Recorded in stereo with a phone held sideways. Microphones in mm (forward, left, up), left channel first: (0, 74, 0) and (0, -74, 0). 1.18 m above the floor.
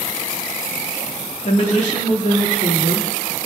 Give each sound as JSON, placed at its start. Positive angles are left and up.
{"t": 1.4, "sound": "a woman speaking", "side_deg": 50, "distance_m": 2.0}